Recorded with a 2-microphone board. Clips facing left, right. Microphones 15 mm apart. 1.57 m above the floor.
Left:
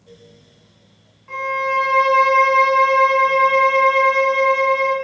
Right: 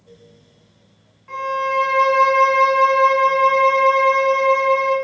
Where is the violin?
Centre (ahead or behind), 0.9 m.